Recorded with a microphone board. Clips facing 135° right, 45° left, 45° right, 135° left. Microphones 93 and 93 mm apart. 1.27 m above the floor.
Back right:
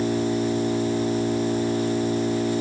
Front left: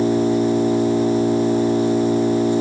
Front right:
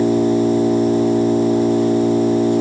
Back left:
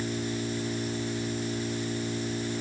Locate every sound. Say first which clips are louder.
0.0 s an engine running: front left 6 dB, front right 17 dB; 20° right